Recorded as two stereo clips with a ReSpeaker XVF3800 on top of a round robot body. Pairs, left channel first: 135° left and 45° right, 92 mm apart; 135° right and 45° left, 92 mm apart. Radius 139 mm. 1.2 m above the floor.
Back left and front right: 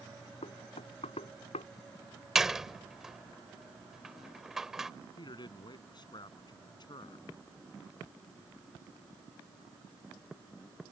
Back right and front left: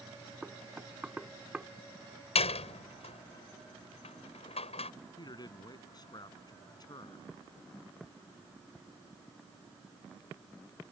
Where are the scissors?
No scissors in this recording.